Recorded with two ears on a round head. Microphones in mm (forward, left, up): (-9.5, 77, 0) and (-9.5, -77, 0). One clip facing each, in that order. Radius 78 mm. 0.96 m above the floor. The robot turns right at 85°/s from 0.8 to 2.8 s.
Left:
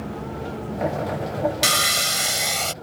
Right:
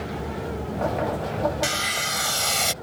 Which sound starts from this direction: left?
Sawing, at 1.6 s.